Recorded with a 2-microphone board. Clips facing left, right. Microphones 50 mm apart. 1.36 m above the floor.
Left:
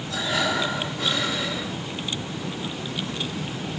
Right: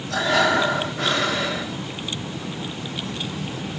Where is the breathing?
55° right (ahead or behind), 1.2 m.